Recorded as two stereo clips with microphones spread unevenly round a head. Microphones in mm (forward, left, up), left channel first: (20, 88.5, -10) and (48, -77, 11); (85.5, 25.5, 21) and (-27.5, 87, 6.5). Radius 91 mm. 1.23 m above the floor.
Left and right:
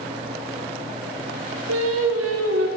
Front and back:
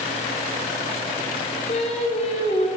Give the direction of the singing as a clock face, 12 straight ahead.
3 o'clock.